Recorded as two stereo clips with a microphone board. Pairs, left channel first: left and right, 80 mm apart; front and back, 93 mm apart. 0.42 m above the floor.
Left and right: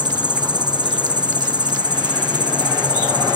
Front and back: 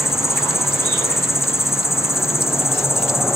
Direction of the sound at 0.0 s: 60° right.